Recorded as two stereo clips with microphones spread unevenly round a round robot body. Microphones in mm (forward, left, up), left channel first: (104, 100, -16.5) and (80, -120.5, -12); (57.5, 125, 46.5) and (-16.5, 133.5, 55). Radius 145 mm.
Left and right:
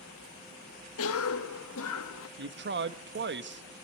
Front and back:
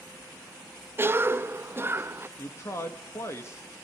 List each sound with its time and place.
1.0 s a cough: 115° left, 1.6 m
2.4 s a man speaking: 65° right, 1.4 m